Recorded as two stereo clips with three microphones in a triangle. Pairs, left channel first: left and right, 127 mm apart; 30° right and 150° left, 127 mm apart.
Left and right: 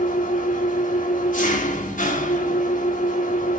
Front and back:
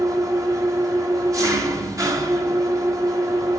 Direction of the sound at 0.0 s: 85° left.